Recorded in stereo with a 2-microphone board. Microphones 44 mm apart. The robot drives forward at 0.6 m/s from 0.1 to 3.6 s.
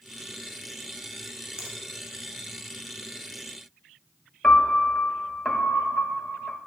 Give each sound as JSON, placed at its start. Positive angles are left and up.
{"t": 1.6, "sound": "a finger snap", "side_deg": -15, "distance_m": 1.3}
{"t": 4.4, "sound": "a piano", "side_deg": 10, "distance_m": 0.6}